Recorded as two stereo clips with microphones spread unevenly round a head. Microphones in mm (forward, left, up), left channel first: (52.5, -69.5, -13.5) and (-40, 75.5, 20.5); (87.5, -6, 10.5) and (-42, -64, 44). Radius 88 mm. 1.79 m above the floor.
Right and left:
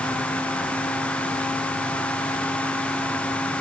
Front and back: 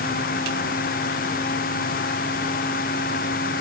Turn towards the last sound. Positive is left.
No sound to turn to.